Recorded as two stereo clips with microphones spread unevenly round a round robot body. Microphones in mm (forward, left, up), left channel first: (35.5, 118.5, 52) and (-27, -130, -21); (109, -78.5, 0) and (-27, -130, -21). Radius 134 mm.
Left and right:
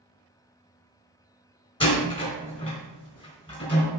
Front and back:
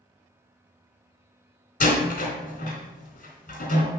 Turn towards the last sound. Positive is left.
turn(degrees=5)